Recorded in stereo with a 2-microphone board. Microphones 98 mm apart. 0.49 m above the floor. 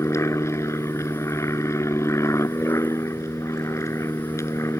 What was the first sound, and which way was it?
An aircraft, 30° left (ahead or behind).